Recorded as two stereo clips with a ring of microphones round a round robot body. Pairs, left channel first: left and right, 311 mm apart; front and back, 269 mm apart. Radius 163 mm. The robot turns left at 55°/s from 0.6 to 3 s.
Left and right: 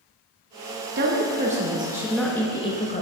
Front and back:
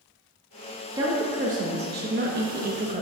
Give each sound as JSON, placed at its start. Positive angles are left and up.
{"t": 0.9, "sound": "a woman speaking", "azimuth_deg": -110, "distance_m": 1.0}